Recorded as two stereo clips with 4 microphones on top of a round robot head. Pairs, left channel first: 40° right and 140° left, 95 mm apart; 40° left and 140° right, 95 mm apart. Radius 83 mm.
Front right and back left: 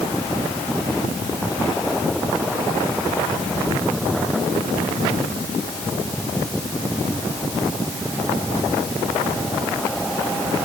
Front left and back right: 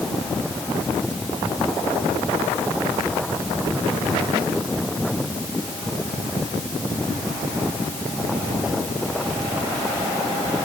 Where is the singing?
No singing in this recording.